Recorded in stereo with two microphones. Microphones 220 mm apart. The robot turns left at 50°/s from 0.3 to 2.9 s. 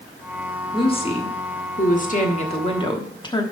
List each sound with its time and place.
0.7 s a woman speaking: 145° left, 1.2 m; by 3.4 s 35° left, 1.2 m